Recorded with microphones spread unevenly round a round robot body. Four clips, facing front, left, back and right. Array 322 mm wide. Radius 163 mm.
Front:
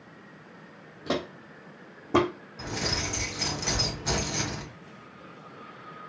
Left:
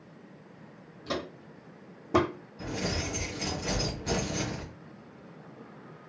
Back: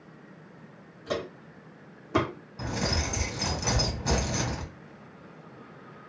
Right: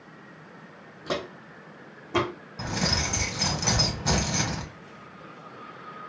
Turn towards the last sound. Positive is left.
turn(degrees=-90)